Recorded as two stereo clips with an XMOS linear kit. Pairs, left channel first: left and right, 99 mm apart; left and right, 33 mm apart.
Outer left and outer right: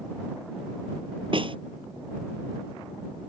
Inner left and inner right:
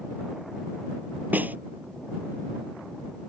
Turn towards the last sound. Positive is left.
turn(degrees=-60)  # may be behind; listen again after turning